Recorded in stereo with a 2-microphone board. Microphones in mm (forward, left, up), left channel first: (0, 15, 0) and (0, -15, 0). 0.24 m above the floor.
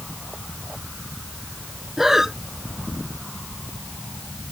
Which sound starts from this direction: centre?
Breathing, at 2.0 s.